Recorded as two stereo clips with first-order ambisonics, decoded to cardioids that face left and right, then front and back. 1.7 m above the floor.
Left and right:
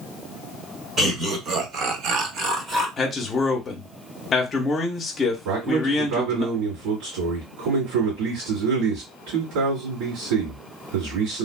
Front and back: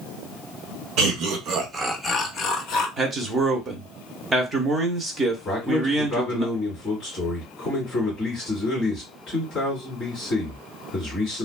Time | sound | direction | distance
1.0 | laughter | 155° right | 1.0 m
3.0 | a man speaking | 135° left | 0.6 m
5.5 | a man speaking | 75° right | 1.9 m